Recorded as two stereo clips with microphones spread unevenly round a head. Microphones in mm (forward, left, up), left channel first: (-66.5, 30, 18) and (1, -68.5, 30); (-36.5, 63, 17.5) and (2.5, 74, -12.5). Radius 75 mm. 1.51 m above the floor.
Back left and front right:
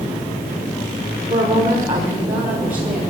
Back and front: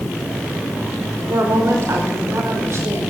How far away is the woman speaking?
About 5.5 m.